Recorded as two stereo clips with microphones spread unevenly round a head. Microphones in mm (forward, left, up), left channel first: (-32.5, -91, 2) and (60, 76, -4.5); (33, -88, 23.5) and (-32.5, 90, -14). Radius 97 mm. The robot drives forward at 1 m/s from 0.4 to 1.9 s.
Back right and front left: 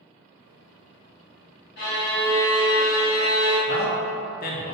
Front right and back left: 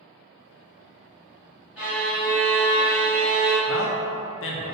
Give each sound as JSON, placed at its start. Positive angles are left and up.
{"t": 1.8, "sound": "a violin", "azimuth_deg": -165, "distance_m": 1.8}
{"t": 3.7, "sound": "a man speaking", "azimuth_deg": -85, "distance_m": 0.5}